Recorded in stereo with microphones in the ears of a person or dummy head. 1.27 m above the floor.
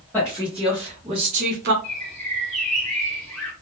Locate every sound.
0.1 s a woman speaking: centre (ahead or behind), 1.5 m; by 1.7 s 50° right (ahead or behind), 0.7 m
1.8 s a bird: 5° left (ahead or behind), 1.4 m